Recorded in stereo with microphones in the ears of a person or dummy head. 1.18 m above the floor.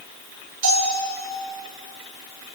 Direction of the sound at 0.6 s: 50° right (ahead or behind).